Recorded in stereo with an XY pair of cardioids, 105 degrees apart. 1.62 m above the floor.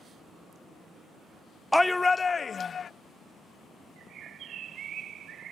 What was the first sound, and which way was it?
A shout, straight ahead.